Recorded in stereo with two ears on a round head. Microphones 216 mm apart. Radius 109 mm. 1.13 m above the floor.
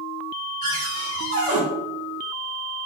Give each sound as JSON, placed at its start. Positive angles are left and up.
{"t": 0.6, "sound": "a cupboard door", "side_deg": -20, "distance_m": 4.5}